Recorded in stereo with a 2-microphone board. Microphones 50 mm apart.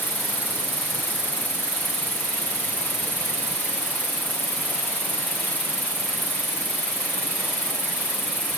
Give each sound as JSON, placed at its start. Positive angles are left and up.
{"t": 0.0, "sound": "an insect", "side_deg": 50, "distance_m": 2.5}